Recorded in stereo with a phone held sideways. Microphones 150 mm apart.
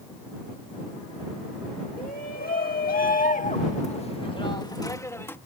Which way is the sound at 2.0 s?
75° left (ahead or behind).